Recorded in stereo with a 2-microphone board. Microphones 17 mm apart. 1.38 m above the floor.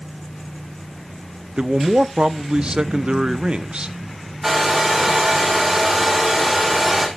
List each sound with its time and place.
1.6 s a man speaking: 60° right (ahead or behind), 0.8 m
4.4 s a hair dryer: 15° right (ahead or behind), 5 m